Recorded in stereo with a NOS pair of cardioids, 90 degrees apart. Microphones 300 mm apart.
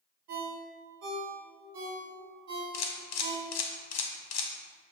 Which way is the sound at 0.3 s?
60° right.